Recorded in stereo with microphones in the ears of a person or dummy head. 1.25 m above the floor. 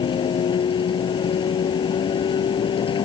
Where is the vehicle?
25° left (ahead or behind).